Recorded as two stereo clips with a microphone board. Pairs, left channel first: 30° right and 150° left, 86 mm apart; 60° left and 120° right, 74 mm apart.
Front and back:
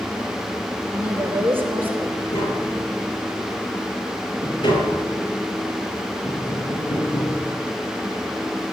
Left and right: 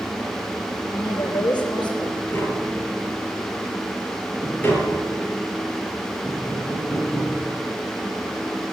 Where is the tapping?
Straight ahead, 7.5 m.